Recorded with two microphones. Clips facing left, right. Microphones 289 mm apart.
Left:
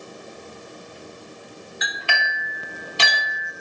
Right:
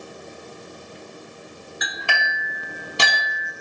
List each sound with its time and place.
1.8 s a clink: 55° right (ahead or behind), 1.1 m